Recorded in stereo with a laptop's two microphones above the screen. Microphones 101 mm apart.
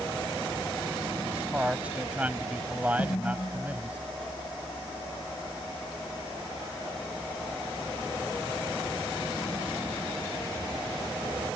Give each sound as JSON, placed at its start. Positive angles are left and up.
{"t": 1.2, "sound": "a man speaking", "side_deg": -15}
{"t": 3.0, "sound": "a snare drum", "side_deg": 45}